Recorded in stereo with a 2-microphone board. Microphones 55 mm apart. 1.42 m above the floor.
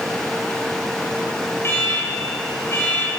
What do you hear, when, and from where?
1.6 s an alarm: 50° left (ahead or behind), 9 m